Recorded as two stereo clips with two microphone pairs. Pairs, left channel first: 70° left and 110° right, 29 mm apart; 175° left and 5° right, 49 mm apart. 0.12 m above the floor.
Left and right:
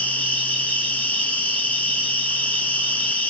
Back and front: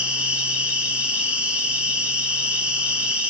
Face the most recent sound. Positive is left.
turn(degrees=60)